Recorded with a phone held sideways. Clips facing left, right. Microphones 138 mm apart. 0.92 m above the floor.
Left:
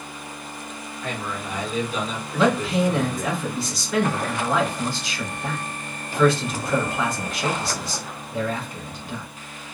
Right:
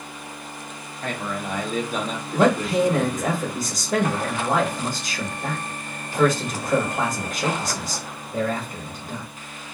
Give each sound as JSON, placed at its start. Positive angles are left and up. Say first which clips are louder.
{"t": 1.0, "sound": "a man speaking", "louder": "right 2 dB", "side_deg": -50, "distance_m": 1.1}
{"t": 2.3, "sound": "a man speaking", "louder": "right 2 dB", "side_deg": -45, "distance_m": 1.3}